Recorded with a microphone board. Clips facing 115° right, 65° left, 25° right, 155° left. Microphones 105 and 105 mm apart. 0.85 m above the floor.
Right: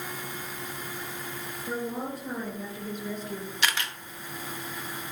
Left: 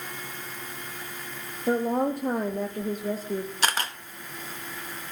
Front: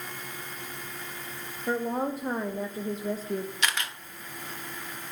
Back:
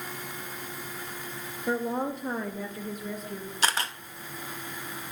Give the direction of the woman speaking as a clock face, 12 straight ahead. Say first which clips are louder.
Left 9 dB, even; 10 o'clock.